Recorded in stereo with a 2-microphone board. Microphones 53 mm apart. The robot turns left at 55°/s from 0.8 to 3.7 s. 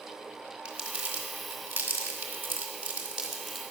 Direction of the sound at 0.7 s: 15° right (ahead or behind).